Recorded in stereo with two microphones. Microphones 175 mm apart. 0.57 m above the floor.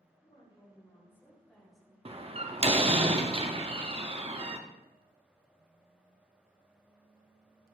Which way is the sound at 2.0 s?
35° right (ahead or behind).